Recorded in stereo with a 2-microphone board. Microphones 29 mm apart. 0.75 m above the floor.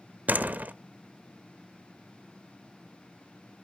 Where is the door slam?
75° right (ahead or behind), 0.7 m.